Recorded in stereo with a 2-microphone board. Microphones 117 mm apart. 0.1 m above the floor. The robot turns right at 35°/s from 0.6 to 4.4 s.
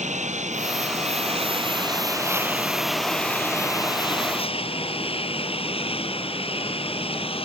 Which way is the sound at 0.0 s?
80° right.